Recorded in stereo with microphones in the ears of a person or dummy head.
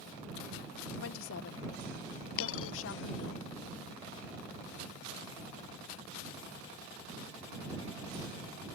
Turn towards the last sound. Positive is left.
turn(degrees=80)